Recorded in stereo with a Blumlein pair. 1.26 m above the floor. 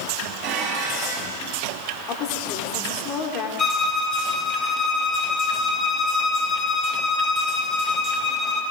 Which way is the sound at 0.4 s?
40° right.